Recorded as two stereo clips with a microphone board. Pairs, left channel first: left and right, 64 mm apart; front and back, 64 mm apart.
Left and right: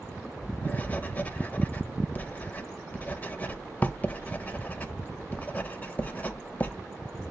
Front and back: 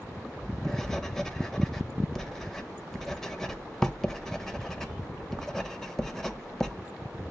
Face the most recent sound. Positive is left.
turn(degrees=70)